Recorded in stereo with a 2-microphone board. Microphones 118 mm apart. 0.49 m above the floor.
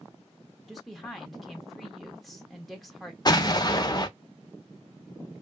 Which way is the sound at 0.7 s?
Centre (ahead or behind).